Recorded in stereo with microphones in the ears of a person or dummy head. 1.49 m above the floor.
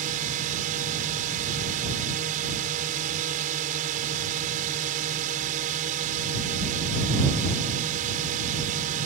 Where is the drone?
45° right (ahead or behind).